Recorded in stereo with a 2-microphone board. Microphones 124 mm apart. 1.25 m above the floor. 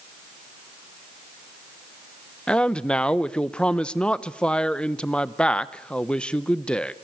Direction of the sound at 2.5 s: 10° left (ahead or behind).